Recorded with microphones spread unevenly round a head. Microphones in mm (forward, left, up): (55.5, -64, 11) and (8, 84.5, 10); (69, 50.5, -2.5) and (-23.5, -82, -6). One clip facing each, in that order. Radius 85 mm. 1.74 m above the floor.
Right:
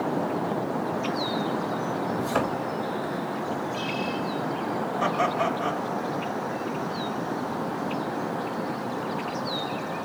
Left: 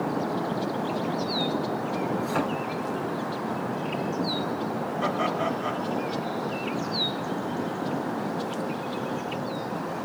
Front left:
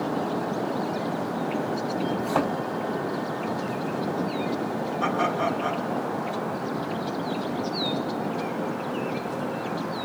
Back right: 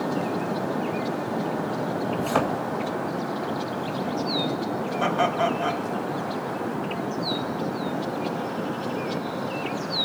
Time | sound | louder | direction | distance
2.2 | a thud | right 1 dB, back right 3 dB | 125° right | 3.5 m
5.0 | laughter | right 2 dB, back right 3 dB | 95° right | 2.5 m